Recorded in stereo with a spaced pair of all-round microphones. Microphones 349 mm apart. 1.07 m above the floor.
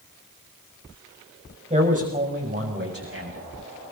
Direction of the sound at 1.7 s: 20° right (ahead or behind).